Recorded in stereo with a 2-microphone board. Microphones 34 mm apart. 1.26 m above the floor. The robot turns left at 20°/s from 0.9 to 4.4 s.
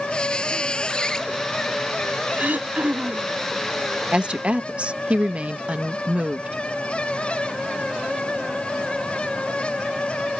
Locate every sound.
0.1 s a squeak: 25° left (ahead or behind); by 1.3 s 20° left (ahead or behind)
2.4 s throat clearing: 55° right (ahead or behind)
4.1 s a woman speaking: 35° right (ahead or behind); by 6.6 s 40° right (ahead or behind)